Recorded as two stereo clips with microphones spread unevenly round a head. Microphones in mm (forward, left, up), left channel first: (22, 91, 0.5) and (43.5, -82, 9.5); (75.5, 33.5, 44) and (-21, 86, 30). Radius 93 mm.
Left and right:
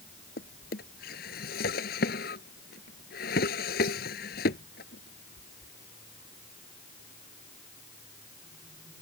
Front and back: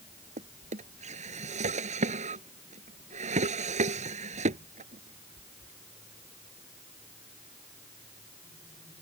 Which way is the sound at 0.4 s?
145° left.